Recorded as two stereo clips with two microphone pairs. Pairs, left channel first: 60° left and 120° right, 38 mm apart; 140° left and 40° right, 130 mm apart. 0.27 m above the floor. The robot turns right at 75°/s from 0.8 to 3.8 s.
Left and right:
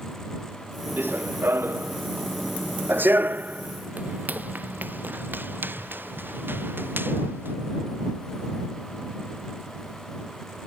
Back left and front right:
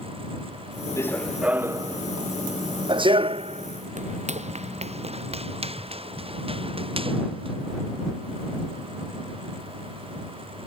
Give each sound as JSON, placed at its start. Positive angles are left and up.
{"t": 1.0, "sound": "running footsteps", "azimuth_deg": -155}